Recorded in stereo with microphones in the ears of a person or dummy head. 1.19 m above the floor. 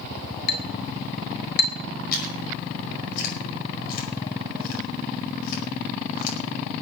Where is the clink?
60° left (ahead or behind), 2 m.